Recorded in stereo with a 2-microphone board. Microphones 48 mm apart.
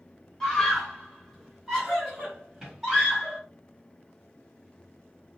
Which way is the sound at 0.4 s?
5° left (ahead or behind).